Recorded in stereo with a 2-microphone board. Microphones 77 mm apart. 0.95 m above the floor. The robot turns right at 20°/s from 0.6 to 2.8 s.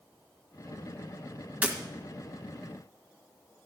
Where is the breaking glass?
20° right (ahead or behind), 1.8 m.